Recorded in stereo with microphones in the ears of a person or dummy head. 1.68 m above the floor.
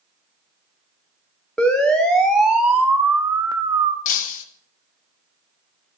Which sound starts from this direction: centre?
A siren, at 1.6 s.